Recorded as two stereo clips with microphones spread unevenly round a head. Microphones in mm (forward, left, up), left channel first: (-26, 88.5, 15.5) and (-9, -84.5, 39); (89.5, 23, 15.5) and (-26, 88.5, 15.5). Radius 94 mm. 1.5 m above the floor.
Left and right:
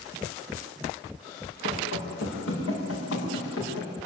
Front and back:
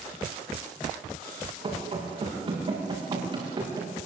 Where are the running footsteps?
105° left, 8.5 m; by 3.9 s 95° left, 9.5 m.